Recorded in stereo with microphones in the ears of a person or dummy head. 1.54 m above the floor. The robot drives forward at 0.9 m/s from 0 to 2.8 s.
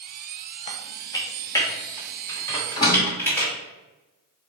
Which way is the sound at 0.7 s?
25° left (ahead or behind).